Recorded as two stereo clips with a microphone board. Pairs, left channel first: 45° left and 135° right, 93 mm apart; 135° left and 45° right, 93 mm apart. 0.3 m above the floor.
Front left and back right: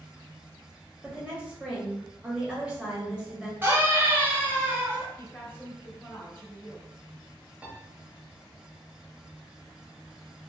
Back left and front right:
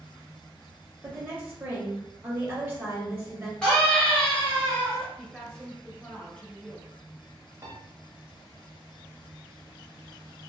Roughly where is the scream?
Behind.